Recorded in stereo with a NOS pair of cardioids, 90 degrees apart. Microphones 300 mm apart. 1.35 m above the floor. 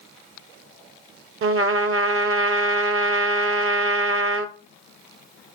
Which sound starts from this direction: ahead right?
A trumpet, at 1.4 s.